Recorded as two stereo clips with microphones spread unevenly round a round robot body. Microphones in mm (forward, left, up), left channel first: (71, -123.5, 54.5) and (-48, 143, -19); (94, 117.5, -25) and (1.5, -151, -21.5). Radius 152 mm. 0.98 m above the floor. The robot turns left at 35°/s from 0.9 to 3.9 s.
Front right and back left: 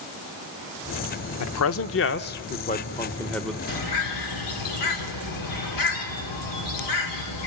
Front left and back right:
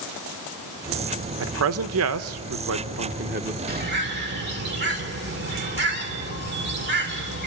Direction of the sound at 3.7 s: 50° right.